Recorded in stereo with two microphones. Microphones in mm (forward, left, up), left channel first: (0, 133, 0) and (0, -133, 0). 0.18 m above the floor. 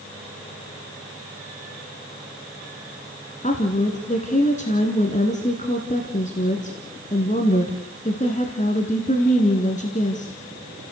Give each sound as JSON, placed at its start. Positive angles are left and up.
{"t": 3.4, "sound": "a woman speaking", "side_deg": 30, "distance_m": 2.0}